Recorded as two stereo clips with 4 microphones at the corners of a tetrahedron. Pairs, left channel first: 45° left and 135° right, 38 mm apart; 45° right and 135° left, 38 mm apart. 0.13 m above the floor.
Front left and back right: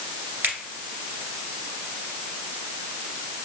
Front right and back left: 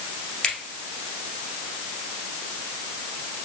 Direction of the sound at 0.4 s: 105° right.